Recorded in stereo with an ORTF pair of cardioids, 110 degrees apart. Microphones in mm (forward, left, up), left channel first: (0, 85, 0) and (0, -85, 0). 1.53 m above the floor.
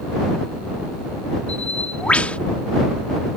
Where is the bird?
5° left.